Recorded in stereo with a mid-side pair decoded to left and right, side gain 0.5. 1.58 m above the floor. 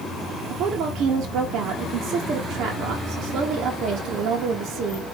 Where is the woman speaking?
65° right, 1.2 m.